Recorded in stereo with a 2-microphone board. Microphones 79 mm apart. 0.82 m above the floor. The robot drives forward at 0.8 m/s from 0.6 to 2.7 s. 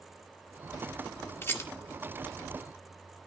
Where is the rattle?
30° left (ahead or behind), 1.7 m; by 1.7 s 35° left (ahead or behind), 1.5 m.